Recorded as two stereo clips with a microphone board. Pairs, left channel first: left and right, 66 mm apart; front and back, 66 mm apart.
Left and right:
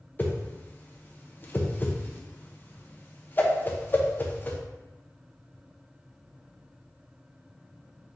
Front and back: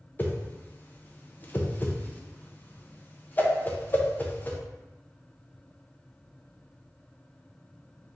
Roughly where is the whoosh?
Ahead left.